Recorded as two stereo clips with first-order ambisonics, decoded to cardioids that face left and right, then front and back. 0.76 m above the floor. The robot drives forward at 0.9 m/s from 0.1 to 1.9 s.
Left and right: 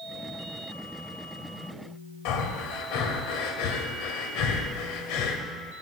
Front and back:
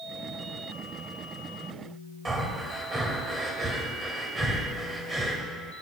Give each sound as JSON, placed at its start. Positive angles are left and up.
{"t": 2.2, "sound": "breathing", "azimuth_deg": 105, "distance_m": 1.1}